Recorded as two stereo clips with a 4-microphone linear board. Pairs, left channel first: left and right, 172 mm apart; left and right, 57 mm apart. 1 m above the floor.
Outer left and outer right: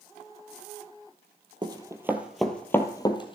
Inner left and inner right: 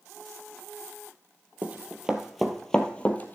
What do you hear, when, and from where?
1.6 s running footsteps: 25° right (ahead or behind), 1.4 m; by 3.4 s 30° left (ahead or behind), 1.5 m